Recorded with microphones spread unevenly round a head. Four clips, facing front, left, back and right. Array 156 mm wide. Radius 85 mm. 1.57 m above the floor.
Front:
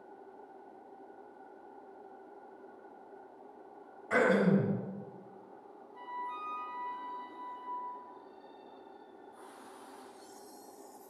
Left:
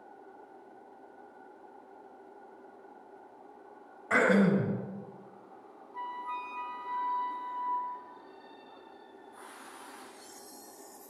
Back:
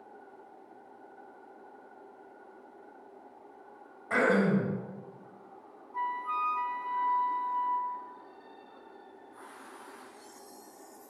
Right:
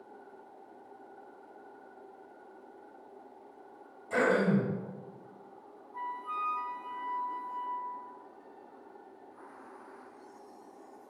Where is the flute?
175° left, 1.8 m.